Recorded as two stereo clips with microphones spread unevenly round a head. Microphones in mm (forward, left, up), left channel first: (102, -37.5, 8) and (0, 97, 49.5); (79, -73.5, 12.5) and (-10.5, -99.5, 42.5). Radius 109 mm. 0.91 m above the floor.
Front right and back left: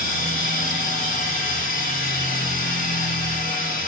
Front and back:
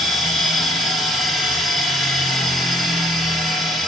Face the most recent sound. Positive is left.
turn(degrees=-65)